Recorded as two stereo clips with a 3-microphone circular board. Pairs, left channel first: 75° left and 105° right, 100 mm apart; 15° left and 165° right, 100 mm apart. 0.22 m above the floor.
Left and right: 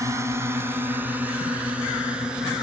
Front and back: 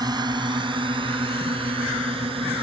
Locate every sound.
0.0 s a drone: 150° right; by 2.6 s 170° left